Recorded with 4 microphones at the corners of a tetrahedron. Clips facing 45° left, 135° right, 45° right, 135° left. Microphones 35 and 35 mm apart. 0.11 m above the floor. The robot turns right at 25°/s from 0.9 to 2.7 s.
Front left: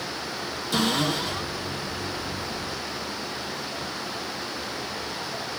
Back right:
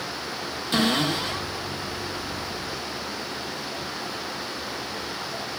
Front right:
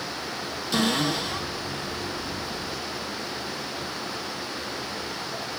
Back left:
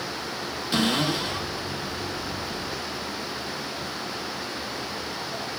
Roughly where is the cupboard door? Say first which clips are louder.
Back right 1 dB, even; behind.